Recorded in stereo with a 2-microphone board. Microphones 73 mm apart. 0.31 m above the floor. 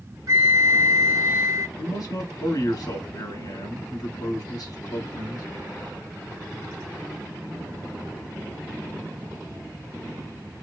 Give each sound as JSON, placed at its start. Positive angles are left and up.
{"t": 0.3, "sound": "a flute", "side_deg": -55, "distance_m": 0.8}
{"t": 1.8, "sound": "a man speaking", "side_deg": 60, "distance_m": 2.0}